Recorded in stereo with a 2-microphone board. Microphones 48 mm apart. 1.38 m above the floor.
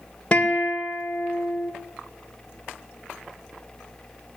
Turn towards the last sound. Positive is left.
turn(degrees=25)  # may be behind; listen again after turning